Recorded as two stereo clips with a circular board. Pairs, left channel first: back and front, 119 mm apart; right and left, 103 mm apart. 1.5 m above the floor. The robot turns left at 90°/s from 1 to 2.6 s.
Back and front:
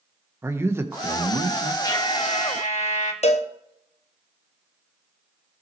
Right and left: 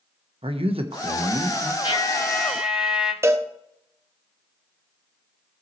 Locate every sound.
0.4 s a man speaking: 70° left, 1.2 m; by 1.7 s 5° left, 1.2 m
1.8 s a trumpet: 120° right, 1.8 m; by 3.1 s 170° left, 1.8 m
3.2 s a cowbell: 155° left, 0.8 m